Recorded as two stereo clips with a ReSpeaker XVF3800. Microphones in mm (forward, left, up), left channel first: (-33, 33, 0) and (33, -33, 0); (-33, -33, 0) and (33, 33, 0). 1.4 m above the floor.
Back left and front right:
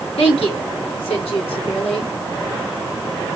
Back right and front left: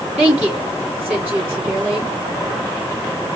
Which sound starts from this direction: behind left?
A woman speaking, at 0.2 s.